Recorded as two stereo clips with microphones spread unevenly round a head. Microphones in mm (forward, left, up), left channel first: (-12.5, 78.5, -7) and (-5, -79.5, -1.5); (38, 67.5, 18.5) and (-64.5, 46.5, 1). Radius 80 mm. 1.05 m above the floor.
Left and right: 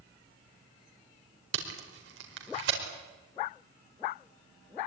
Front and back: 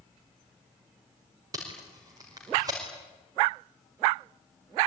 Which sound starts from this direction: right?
Tape being pulled, at 1.5 s.